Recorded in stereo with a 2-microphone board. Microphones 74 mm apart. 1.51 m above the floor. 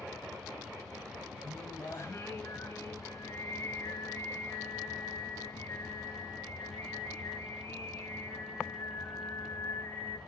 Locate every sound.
1.4 s singing: 35° left (ahead or behind), 2.5 m